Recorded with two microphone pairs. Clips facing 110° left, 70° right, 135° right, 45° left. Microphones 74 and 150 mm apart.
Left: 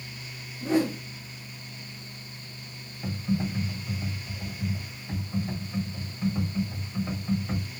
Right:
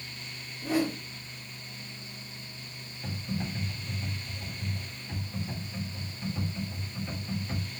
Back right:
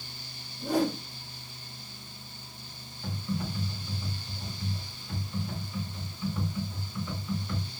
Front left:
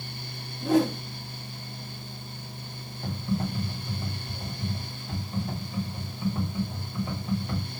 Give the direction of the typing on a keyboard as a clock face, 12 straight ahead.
10 o'clock.